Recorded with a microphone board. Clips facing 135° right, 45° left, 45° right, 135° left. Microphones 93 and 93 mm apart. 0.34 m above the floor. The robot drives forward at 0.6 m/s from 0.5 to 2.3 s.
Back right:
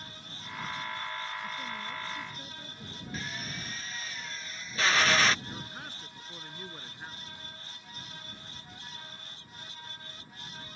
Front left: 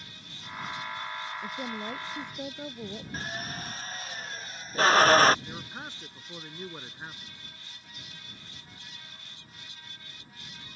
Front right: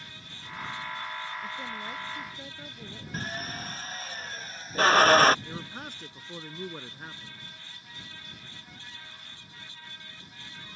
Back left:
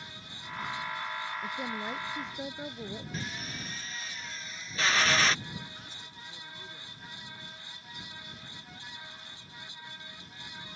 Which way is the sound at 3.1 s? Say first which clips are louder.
Even, front right 3 dB; 5° right.